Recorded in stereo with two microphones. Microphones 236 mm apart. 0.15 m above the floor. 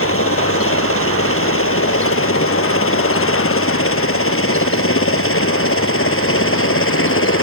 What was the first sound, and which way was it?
A helicopter, 65° left (ahead or behind).